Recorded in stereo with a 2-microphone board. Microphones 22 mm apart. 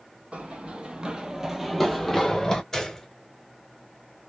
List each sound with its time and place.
0.3 s running footsteps: 65° right (ahead or behind), 0.9 m; by 2.6 s 30° left (ahead or behind), 0.9 m
2.7 s a gunshot: 25° left (ahead or behind), 0.8 m